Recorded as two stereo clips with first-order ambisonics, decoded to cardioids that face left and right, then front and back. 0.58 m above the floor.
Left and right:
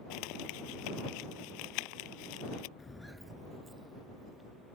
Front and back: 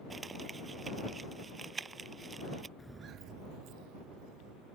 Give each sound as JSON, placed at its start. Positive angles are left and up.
{"t": 0.1, "sound": "crumpling", "azimuth_deg": 105}
{"t": 2.8, "sound": "footsteps", "azimuth_deg": 55}